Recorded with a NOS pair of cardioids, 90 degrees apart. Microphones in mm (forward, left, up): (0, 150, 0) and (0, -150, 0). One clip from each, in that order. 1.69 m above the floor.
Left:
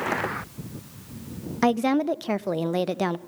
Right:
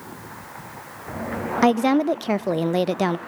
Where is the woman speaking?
15° right, 0.7 m.